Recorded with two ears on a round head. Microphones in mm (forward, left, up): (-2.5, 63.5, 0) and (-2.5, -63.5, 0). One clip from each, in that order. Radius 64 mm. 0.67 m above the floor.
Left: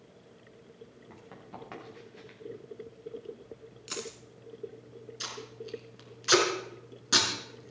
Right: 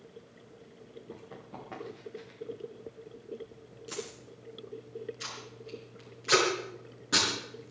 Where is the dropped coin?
55° left (ahead or behind), 2.5 m.